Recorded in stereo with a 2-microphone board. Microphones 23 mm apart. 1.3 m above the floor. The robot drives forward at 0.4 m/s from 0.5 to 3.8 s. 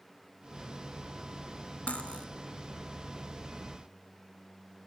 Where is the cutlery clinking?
65° left (ahead or behind), 1.2 m; by 2.3 s 60° left (ahead or behind), 1.3 m.